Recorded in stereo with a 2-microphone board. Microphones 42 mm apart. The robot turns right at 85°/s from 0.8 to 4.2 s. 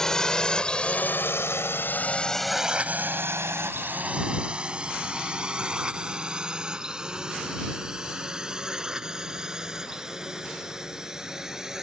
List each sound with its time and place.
0.0 s a drone: 15° left (ahead or behind); by 11.8 s 15° right (ahead or behind)